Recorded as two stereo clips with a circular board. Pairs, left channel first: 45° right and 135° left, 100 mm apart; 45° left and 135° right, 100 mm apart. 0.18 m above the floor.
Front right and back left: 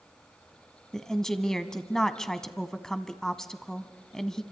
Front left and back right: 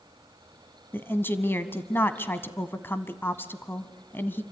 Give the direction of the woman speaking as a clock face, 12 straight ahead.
11 o'clock.